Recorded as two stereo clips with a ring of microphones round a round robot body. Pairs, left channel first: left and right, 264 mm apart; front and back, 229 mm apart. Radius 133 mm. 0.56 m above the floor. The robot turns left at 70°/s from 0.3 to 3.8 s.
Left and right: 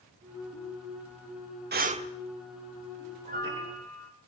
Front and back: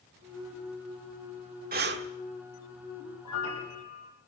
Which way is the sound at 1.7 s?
135° right.